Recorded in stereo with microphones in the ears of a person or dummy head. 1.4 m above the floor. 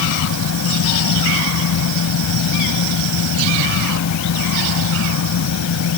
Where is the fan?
80° left.